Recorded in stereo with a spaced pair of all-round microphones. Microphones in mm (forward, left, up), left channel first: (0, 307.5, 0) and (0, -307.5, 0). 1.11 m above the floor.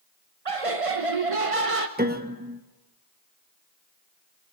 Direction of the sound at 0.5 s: 60° right (ahead or behind).